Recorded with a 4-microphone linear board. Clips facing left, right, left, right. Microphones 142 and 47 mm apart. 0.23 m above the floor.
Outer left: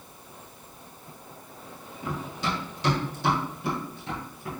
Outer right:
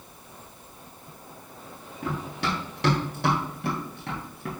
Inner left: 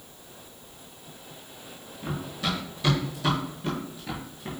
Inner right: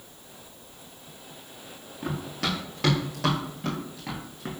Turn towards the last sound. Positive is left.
turn(degrees=-60)  # may be behind; listen again after turning